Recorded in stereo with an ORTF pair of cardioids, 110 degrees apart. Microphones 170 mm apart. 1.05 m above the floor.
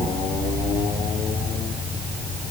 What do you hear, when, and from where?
Only background noise.